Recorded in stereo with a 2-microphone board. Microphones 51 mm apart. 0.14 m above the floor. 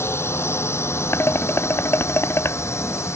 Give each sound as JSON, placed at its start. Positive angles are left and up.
{"t": 0.0, "sound": "a drone", "side_deg": 55}
{"t": 1.1, "sound": "dishes clattering", "side_deg": 55}